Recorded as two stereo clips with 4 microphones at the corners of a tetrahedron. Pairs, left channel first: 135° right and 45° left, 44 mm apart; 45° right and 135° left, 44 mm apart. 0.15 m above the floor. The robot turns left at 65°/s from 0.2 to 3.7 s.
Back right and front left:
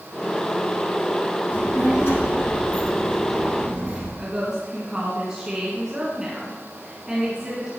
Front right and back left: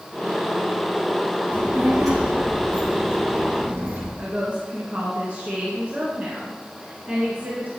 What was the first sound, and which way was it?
A child speaking, 105° right.